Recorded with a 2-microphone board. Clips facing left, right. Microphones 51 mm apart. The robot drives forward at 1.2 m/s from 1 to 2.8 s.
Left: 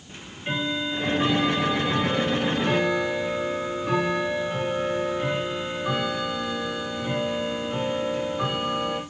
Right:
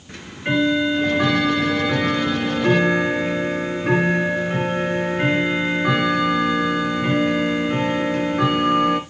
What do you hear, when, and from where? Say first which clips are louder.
0.1 s ticking: right 8 dB; 80° right, 3 m; by 9.0 s 65° right (ahead or behind), 3.5 m